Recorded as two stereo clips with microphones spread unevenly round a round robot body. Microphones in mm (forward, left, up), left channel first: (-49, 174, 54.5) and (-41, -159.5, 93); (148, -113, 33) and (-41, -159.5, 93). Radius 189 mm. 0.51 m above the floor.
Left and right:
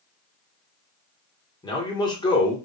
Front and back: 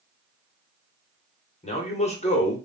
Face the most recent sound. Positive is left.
turn(degrees=25)